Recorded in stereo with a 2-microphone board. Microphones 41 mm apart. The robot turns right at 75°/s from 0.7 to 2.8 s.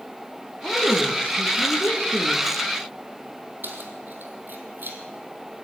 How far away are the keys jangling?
About 3.5 m.